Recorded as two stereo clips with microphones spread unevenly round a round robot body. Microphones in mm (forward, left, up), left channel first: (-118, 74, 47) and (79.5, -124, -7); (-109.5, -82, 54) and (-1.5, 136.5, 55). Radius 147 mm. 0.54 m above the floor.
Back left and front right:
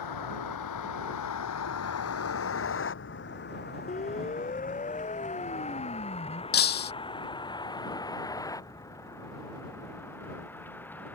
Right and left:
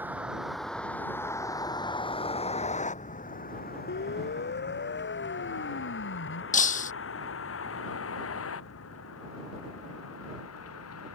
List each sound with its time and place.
0.0 s a vehicle: 145° left; by 11.2 s 140° right
3.9 s a siren: 160° right; by 6.4 s 155° right
6.5 s breaking glass: 175° right